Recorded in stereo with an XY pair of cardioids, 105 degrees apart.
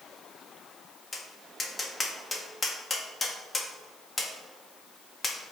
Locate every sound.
1.1 s tapping: 20° left, 1.3 m